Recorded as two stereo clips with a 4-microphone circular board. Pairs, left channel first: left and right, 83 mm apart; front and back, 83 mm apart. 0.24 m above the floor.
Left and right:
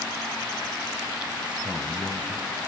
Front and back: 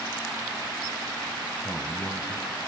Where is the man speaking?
85° right, 1.0 m; by 2.7 s 20° right, 1.7 m.